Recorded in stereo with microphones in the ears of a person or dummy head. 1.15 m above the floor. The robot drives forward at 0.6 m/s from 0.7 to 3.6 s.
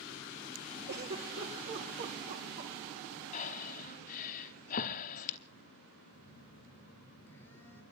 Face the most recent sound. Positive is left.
turn(degrees=15)  # may be behind; listen again after turning